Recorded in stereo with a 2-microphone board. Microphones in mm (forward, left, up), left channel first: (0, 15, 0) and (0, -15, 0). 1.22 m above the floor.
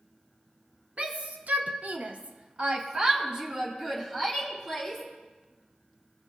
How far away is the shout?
About 0.8 m.